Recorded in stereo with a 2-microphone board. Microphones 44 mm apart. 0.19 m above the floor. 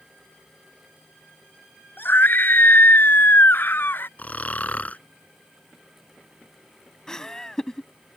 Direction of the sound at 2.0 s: 50° left (ahead or behind).